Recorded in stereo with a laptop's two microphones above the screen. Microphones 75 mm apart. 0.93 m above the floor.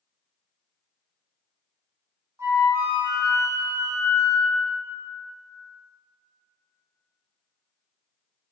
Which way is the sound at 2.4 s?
40° right (ahead or behind).